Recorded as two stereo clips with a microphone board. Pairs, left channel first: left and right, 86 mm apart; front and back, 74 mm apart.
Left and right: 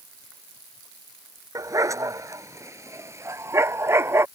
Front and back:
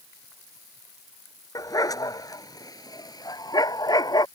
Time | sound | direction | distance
1.6 | a dog barking | 40° right | ?